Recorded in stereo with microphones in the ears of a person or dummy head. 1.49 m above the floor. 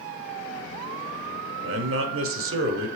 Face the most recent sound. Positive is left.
turn(degrees=-70)  # may be behind; listen again after turning